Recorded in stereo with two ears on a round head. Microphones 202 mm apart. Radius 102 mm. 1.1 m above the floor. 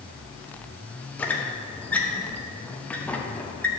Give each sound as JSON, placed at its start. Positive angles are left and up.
{"t": 1.2, "sound": "a squeak", "side_deg": 5, "distance_m": 0.7}